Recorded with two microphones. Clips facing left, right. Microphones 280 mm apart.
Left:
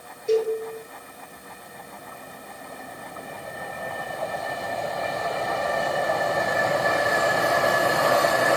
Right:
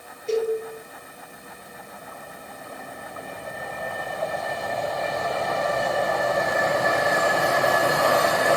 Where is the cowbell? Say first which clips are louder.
Left 2 dB; 15° left (ahead or behind), 4.5 m.